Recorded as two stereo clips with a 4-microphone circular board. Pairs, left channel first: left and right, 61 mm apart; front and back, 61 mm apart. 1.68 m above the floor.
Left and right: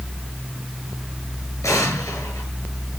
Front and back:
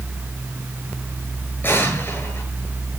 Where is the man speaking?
I don't hear a man speaking.